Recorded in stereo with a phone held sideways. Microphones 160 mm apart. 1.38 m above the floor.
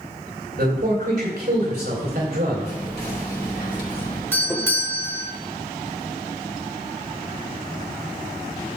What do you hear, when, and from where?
0.6 s a man speaking: 75° right (ahead or behind), 4.5 m
2.6 s whispering: 75° left (ahead or behind), 3.5 m
4.3 s a doorbell: 15° left (ahead or behind), 1.4 m